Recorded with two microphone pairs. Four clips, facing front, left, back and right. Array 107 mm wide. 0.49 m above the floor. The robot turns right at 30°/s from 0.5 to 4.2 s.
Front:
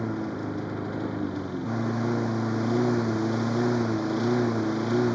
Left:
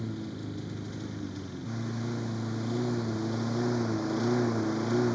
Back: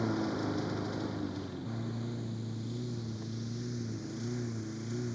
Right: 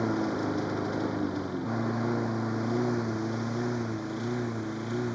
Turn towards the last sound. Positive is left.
turn(degrees=20)